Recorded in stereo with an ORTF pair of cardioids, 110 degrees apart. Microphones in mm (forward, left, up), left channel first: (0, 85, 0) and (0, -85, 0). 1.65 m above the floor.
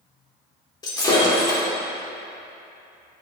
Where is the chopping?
No chopping in this recording.